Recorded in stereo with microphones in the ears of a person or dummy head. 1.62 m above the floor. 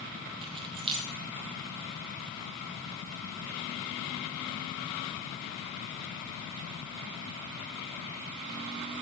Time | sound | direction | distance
0.4 | keys jangling | 30° right (ahead or behind) | 0.7 m